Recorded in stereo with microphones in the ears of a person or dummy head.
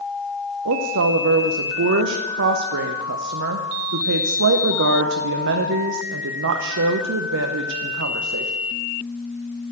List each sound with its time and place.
0.7 s a woman speaking: 60° right (ahead or behind), 0.7 m